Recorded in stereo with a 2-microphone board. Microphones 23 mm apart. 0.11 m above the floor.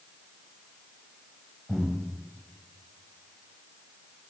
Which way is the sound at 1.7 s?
5° left (ahead or behind).